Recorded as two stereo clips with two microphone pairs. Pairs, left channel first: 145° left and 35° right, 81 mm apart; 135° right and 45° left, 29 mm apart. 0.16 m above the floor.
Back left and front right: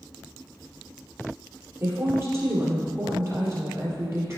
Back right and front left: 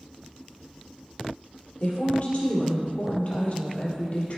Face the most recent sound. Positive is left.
turn(degrees=-90)